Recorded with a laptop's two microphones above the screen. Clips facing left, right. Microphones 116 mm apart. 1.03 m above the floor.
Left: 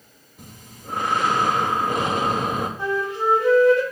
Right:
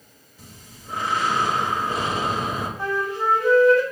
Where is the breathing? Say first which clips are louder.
Left 3 dB; 55° left (ahead or behind), 1.0 m.